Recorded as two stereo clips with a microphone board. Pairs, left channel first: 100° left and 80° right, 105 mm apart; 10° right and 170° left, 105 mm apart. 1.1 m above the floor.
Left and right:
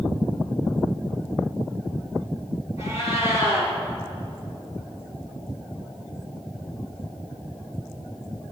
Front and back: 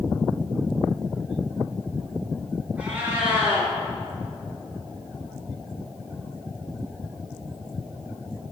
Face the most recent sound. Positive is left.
turn(degrees=95)